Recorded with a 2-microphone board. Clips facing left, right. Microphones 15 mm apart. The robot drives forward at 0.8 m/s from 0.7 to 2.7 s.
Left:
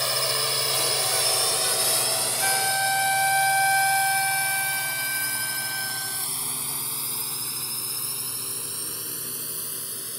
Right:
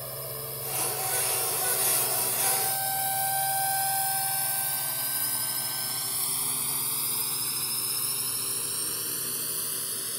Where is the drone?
65° left (ahead or behind); by 10.2 s 15° right (ahead or behind).